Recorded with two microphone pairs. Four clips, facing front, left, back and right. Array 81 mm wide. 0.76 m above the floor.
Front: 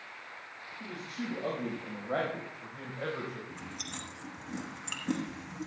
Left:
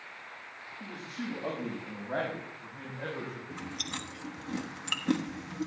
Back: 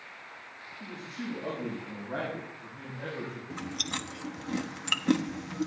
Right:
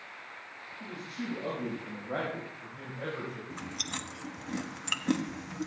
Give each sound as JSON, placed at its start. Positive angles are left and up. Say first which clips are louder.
{"t": 0.8, "sound": "a man speaking", "louder": "even, even", "azimuth_deg": 30, "distance_m": 5.0}
{"t": 3.5, "sound": "chewing", "louder": "even, back 6 dB", "azimuth_deg": -160, "distance_m": 1.0}